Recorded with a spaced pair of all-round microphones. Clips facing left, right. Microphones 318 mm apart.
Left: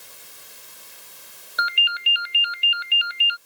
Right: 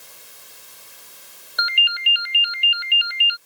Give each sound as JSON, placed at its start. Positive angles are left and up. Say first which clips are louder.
{"t": 1.6, "sound": "a ringtone", "louder": "left 1 dB", "side_deg": 5}